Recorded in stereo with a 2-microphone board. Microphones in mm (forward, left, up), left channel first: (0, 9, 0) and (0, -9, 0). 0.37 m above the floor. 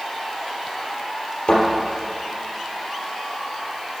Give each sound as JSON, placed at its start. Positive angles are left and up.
{"t": 1.5, "sound": "a thud", "side_deg": 70, "distance_m": 3.0}